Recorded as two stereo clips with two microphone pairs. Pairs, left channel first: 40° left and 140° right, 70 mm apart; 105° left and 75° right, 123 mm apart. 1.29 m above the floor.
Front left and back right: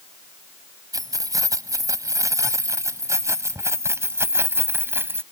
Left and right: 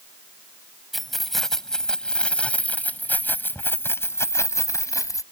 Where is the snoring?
No snoring in this recording.